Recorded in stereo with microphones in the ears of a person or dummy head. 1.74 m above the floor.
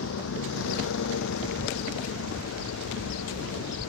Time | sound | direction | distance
0.0 | a vehicle | 70° left (ahead or behind) | ?